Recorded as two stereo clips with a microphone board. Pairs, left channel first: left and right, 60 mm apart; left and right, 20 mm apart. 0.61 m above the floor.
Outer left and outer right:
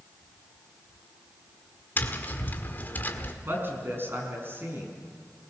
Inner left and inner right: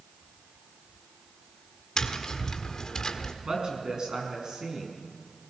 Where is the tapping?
35° left (ahead or behind), 1.6 m.